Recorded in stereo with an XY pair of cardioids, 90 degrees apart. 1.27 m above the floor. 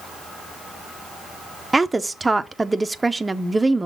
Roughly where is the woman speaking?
Ahead.